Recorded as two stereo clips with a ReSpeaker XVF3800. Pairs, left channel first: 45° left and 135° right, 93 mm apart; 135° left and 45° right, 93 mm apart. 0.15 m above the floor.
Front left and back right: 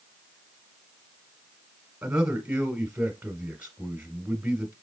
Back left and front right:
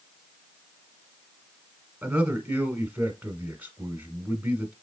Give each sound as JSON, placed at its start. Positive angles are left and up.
{"t": 2.0, "sound": "a man speaking", "azimuth_deg": -95, "distance_m": 1.0}